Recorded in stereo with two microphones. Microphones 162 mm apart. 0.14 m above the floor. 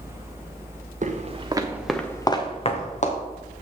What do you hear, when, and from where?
1.0 s footsteps: 50° right (ahead or behind), 1.6 m; by 3.2 s 50° left (ahead or behind), 2.5 m